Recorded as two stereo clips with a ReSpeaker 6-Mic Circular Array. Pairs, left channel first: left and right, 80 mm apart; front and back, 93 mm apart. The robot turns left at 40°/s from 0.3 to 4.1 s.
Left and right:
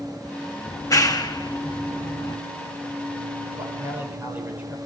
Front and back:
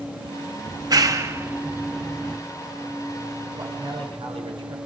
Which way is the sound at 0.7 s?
145° left.